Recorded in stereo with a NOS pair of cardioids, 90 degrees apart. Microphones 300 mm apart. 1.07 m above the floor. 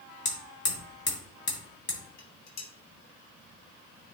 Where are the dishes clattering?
60° left, 2.0 m.